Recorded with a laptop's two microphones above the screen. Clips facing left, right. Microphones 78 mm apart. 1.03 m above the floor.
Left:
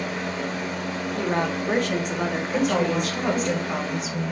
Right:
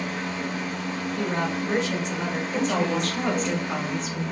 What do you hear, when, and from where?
0.0 s a fan: 55° left (ahead or behind), 2.5 m
1.1 s a woman speaking: 50° left (ahead or behind), 1.4 m
2.5 s a woman speaking: 5° left (ahead or behind), 1.6 m